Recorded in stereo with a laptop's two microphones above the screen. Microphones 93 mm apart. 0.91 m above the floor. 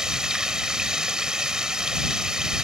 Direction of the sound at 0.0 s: 10° right (ahead or behind).